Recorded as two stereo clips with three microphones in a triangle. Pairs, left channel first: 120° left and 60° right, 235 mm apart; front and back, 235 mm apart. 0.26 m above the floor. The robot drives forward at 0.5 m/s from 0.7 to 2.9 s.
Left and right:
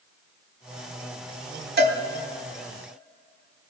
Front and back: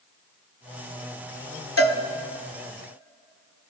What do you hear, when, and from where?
1.8 s a cowbell: 15° right, 0.9 m; by 2.0 s 20° right, 0.8 m